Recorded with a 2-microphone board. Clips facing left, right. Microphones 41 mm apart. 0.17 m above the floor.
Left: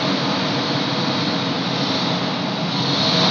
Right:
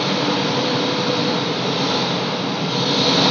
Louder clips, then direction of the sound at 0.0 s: Right 1 dB; 80° right.